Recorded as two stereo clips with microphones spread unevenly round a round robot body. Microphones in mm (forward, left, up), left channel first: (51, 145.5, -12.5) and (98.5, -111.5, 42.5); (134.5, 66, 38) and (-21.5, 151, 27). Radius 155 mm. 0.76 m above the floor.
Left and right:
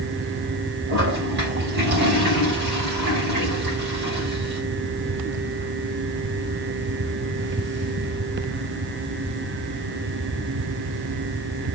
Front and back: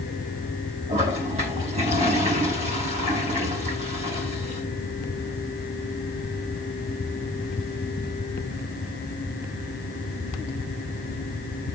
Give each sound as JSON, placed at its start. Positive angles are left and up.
{"t": 0.9, "sound": "a toilet flushing", "azimuth_deg": -140, "distance_m": 4.0}